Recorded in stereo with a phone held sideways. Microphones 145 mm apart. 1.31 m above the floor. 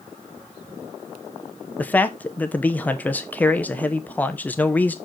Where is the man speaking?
10° left (ahead or behind), 0.8 m.